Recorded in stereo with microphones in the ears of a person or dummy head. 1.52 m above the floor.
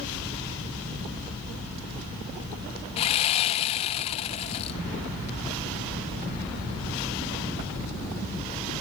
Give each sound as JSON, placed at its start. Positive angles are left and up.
{"t": 3.0, "sound": "sawing", "side_deg": 35, "distance_m": 0.7}